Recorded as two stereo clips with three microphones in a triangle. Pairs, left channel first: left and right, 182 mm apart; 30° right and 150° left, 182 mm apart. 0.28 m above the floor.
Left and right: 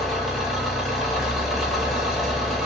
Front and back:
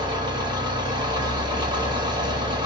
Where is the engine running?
Straight behind, 0.8 m.